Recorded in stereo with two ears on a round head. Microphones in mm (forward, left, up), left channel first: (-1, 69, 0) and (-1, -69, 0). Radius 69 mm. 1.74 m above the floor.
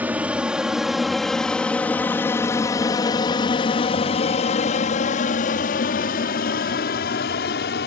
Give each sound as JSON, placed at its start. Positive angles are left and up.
{"t": 0.0, "sound": "an aircraft", "side_deg": -10}